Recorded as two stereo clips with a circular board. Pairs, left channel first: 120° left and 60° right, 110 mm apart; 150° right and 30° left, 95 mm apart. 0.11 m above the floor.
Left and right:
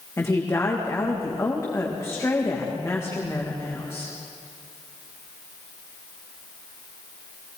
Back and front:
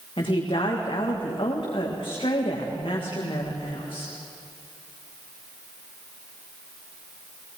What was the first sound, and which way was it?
A woman speaking, 175° right.